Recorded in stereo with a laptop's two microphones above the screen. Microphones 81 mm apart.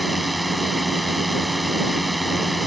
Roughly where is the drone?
Centre.